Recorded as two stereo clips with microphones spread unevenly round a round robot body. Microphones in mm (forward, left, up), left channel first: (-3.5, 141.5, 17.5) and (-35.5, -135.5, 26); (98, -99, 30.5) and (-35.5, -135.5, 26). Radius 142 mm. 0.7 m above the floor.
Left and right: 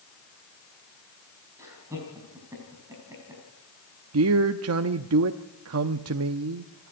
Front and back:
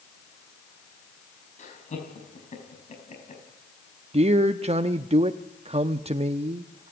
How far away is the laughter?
About 4.5 m.